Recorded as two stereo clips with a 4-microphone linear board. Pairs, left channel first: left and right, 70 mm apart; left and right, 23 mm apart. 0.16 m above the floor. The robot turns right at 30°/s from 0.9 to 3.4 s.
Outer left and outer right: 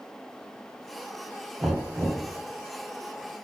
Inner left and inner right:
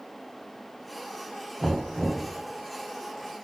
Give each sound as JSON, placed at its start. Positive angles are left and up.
{"t": 1.6, "sound": "knocking", "side_deg": -30, "distance_m": 3.5}